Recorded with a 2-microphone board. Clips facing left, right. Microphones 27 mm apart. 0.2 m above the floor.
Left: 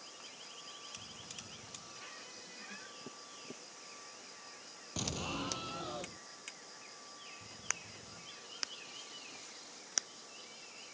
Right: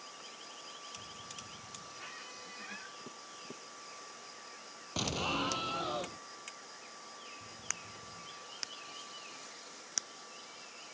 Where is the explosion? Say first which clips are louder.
Right 5 dB; 30° right (ahead or behind).